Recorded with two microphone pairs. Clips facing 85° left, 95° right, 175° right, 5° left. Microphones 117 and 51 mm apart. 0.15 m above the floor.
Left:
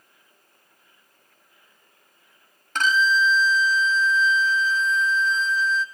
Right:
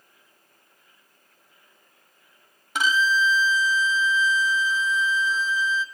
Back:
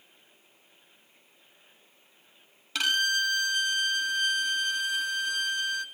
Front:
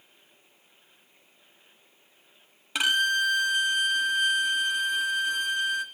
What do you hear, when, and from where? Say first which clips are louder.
2.8 s a violin: left 1 dB, front 3 dB; 35° right, 0.5 m